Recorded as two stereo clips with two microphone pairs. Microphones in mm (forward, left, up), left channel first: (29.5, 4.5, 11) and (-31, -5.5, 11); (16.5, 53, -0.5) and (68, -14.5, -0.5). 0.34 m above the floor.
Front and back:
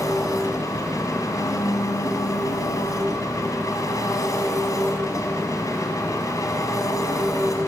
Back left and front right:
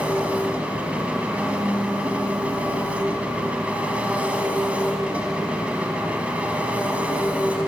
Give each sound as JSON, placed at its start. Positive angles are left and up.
{"t": 0.0, "sound": "an engine running", "azimuth_deg": 20, "distance_m": 2.5}